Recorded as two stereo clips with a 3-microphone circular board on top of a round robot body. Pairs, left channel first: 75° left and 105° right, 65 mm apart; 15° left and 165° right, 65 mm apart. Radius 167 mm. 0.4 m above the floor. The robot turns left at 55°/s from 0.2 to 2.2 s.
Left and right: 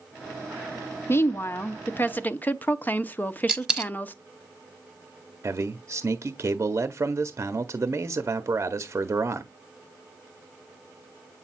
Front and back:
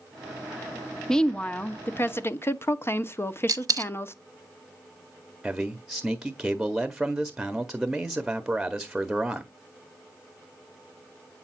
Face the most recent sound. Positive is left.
turn(degrees=-85)